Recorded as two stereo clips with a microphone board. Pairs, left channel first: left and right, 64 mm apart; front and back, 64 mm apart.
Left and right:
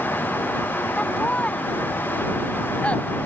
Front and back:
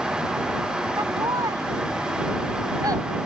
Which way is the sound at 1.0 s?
160° left.